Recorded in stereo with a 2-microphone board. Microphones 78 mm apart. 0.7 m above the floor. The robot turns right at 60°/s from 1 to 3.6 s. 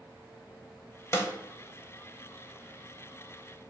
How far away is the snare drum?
About 0.6 m.